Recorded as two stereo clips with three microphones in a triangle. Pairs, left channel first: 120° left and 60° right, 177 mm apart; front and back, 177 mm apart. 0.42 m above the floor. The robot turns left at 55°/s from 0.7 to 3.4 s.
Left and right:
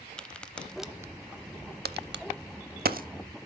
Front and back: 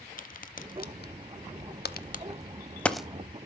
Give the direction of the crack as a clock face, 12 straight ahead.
11 o'clock.